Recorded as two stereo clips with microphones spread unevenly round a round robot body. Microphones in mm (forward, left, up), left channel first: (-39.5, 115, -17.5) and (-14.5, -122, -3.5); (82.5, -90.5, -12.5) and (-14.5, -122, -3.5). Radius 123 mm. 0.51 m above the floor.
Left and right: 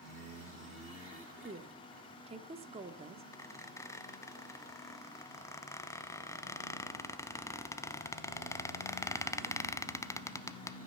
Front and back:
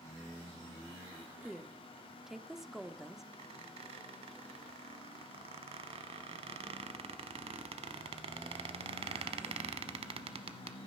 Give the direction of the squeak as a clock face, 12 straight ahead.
6 o'clock.